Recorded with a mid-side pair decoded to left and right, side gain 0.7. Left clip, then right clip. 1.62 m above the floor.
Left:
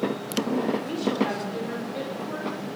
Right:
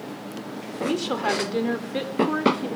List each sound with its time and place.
0.8 s a woman speaking: 35° right, 4.5 m; by 2.7 s 50° right, 4 m